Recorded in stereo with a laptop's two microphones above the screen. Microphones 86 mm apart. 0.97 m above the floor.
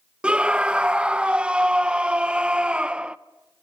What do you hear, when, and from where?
0.2 s a scream: 15° right (ahead or behind), 0.6 m